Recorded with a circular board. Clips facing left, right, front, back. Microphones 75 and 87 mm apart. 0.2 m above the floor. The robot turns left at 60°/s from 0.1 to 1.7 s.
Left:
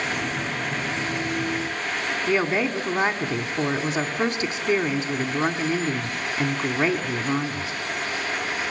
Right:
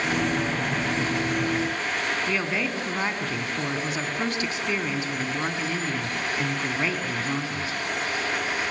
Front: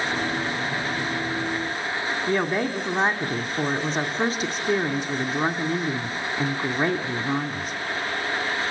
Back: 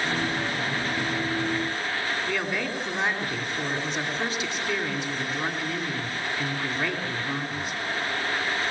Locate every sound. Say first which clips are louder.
2.3 s a woman speaking: left 4 dB, front 5 dB; 35° left, 1.8 m